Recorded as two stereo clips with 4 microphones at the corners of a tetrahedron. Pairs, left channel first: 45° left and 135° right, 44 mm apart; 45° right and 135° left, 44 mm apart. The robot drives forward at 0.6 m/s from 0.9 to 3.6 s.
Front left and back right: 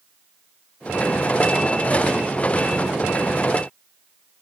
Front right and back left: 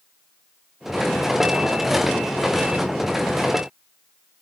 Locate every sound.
Only background noise.